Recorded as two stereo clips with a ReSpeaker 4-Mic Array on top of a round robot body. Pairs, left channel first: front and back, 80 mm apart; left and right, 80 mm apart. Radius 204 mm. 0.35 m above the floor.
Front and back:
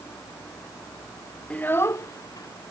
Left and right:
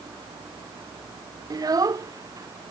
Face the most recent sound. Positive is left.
turn(degrees=-40)